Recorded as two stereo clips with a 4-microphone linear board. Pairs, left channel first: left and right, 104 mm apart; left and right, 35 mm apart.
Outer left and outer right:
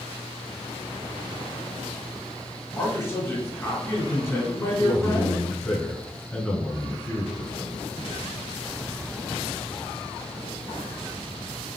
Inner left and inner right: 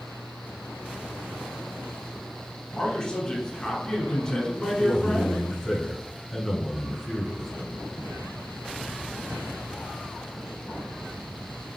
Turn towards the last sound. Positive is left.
turn(degrees=10)  # may be behind; listen again after turning